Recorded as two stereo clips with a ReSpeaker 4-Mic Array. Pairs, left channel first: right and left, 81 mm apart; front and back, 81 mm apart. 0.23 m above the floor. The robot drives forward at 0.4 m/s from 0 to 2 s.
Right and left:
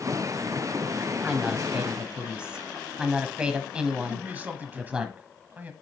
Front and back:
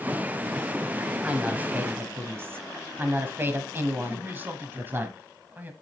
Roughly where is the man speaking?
Behind left.